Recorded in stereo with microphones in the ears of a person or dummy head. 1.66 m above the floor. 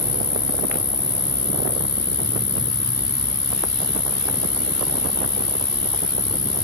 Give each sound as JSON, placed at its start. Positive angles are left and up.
{"t": 0.0, "sound": "an insect", "side_deg": 20, "distance_m": 0.8}